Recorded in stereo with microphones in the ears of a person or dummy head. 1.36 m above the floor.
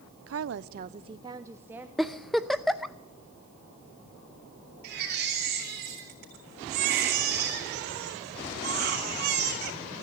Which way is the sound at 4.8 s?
55° right (ahead or behind).